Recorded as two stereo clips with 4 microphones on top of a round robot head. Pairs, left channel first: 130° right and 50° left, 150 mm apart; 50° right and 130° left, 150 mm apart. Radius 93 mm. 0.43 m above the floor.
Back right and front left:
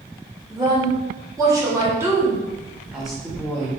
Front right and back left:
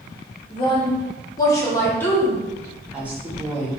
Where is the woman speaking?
5° right, 1.7 m; by 3.7 s 160° left, 1.2 m.